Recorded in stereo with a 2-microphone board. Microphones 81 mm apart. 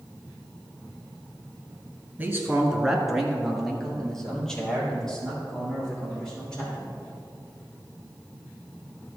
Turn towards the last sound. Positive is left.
turn(degrees=10)  # may be behind; listen again after turning